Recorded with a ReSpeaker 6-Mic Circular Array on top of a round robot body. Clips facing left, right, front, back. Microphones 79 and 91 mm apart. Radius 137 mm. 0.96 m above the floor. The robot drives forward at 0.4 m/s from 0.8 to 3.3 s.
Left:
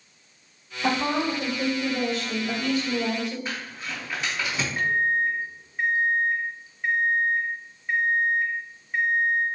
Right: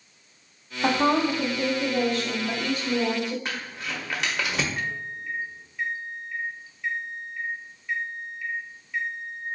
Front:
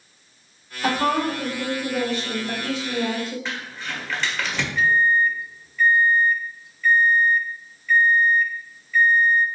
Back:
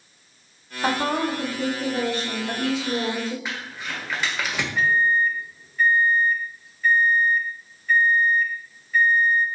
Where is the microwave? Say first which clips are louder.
Left 9 dB, front 2 dB; 135° left, 0.6 m.